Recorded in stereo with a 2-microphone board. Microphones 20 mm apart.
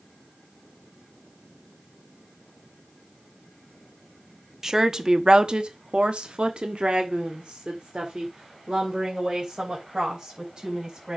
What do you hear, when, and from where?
4.6 s a woman speaking: 25° right (ahead or behind), 1.1 m; by 11.2 s 35° right (ahead or behind), 4 m